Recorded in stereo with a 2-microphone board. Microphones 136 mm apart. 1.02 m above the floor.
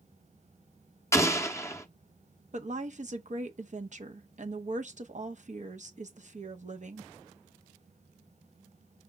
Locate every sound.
1.1 s an explosion: 20° left (ahead or behind), 0.6 m
2.5 s a woman speaking: 60° right (ahead or behind), 0.7 m